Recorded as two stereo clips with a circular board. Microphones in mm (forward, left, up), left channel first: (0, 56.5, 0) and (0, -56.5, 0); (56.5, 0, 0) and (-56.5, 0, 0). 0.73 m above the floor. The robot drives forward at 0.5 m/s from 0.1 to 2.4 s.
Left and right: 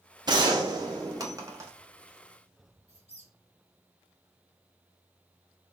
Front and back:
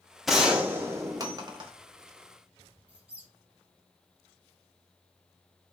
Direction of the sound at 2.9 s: 100° left.